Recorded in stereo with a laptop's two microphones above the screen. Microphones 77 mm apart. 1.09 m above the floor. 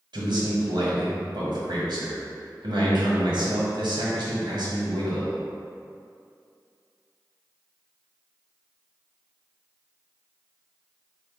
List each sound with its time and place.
0.1 s a man speaking: 70° right (ahead or behind), 1.0 m